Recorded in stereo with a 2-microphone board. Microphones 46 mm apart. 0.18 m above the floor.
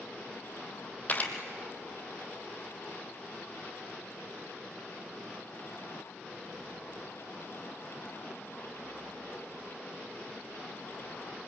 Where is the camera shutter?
35° left (ahead or behind), 1.8 m.